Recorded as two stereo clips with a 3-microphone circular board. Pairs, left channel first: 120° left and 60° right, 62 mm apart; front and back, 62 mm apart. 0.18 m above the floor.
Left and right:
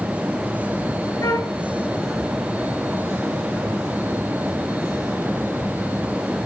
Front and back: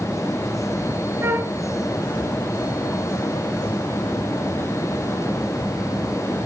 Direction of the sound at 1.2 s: 135° left.